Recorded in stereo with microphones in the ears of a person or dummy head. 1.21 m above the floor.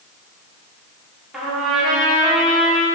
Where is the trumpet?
5° right (ahead or behind), 2 m.